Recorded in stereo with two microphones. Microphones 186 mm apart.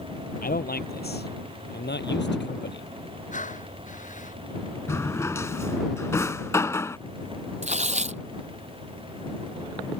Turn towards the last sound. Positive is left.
turn(degrees=-40)  # may be behind; listen again after turning